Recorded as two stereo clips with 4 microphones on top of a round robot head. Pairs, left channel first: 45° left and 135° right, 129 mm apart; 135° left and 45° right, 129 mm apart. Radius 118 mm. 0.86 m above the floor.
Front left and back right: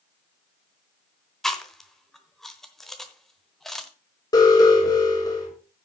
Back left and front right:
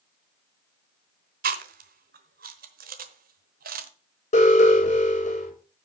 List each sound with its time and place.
1.4 s chewing: 45° right, 1.0 m
4.3 s an alarm: 105° left, 6.5 m